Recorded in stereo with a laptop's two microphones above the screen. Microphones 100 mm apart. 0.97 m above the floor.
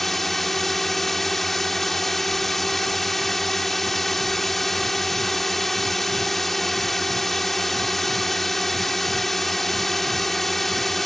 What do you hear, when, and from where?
0.0 s a drone: centre (ahead or behind)